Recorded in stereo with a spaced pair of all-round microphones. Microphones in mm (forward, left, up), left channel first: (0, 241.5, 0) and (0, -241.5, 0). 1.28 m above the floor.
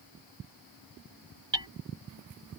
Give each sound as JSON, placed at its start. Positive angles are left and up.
{"t": 1.5, "sound": "hammering", "side_deg": -60}